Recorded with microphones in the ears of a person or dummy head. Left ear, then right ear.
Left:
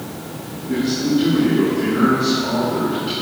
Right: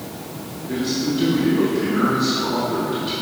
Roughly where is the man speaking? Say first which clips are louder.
Left 3 dB; centre.